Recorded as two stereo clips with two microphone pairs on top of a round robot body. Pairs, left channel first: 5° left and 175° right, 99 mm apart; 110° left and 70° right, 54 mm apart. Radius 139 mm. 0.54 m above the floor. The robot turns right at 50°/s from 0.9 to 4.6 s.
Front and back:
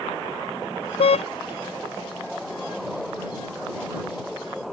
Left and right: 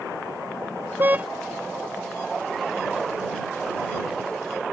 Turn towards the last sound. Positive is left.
turn(degrees=160)